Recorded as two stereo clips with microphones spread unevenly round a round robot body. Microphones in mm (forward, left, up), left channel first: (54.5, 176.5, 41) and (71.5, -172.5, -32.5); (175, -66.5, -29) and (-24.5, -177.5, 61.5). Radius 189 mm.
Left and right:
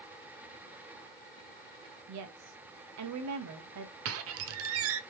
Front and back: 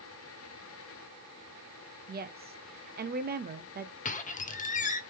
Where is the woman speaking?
85° right, 0.8 m.